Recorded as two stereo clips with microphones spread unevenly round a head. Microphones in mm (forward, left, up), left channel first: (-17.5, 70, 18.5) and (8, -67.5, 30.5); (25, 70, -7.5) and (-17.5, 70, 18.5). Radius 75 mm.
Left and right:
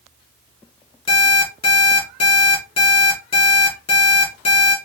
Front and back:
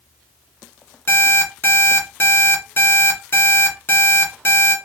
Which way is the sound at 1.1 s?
45° left.